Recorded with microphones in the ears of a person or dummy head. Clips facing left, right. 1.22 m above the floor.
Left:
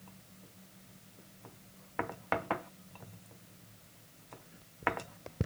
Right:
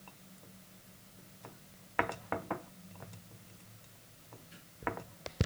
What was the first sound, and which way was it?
Only background noise.